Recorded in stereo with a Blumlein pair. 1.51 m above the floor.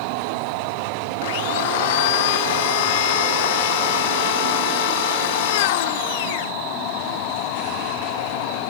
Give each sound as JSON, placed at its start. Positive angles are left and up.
{"t": 1.2, "sound": "a blender", "azimuth_deg": 50}